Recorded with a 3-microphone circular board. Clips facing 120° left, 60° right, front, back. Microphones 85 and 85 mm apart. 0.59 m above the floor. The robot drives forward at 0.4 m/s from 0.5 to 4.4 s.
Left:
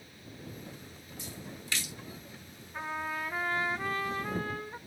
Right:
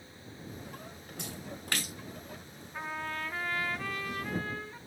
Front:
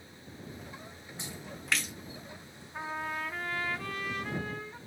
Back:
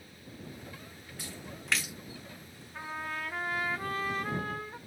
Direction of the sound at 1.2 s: 65° right.